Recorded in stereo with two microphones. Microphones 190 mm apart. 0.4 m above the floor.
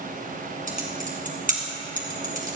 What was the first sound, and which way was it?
Typing on a keyboard, 45° right (ahead or behind).